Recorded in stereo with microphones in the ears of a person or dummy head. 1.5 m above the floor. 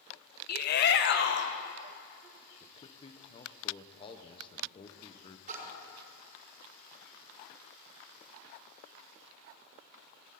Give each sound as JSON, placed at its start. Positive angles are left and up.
{"t": 0.5, "sound": "a shout", "side_deg": 55, "distance_m": 1.1}
{"t": 2.6, "sound": "a man speaking", "side_deg": 25, "distance_m": 1.1}
{"t": 5.5, "sound": "a splash", "side_deg": -45, "distance_m": 5.5}